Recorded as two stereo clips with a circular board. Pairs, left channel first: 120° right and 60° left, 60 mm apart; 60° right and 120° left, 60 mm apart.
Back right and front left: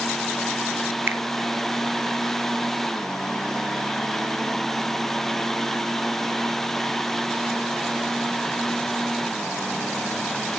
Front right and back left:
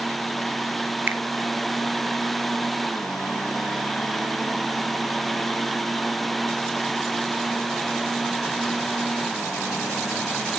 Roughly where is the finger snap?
Left.